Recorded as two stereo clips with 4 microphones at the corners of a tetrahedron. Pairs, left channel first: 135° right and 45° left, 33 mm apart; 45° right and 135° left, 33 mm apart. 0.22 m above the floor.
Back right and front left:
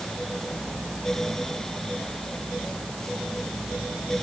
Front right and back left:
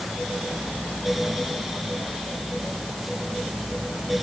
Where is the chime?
I don't hear a chime.